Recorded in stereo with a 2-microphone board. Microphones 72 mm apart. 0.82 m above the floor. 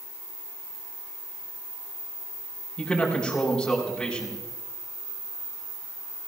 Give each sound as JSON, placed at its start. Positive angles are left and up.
{"t": 2.8, "sound": "a man speaking", "side_deg": 10, "distance_m": 5.5}